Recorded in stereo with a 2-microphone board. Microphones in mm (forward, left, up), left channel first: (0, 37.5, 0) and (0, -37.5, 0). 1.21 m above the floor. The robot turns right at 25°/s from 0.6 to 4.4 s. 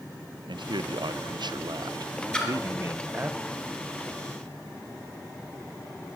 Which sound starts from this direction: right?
A man speaking, at 0.5 s.